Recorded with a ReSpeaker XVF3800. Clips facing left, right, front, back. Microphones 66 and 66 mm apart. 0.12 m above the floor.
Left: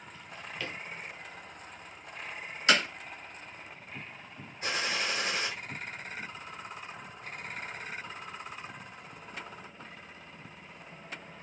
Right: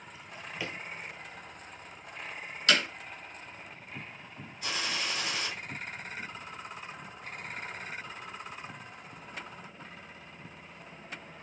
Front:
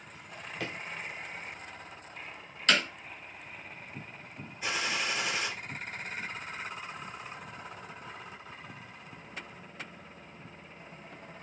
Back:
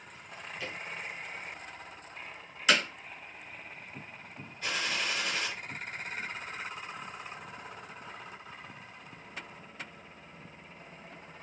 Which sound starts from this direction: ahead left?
A gunshot, at 4.6 s.